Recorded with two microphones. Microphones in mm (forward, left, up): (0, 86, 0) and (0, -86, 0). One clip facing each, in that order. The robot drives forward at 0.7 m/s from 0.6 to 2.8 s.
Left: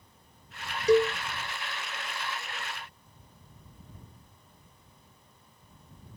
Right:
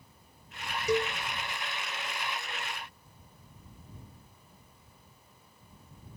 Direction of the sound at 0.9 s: 30° left (ahead or behind).